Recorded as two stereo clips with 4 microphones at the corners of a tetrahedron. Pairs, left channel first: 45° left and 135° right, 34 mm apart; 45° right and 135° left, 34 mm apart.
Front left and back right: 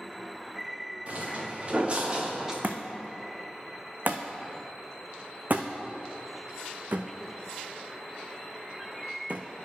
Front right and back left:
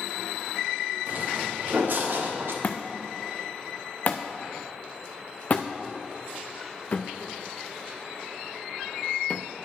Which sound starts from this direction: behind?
Footsteps, at 1.1 s.